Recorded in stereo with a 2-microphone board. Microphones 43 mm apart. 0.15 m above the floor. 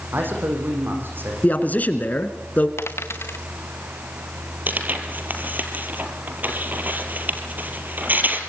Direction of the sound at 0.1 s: 55° right (ahead or behind).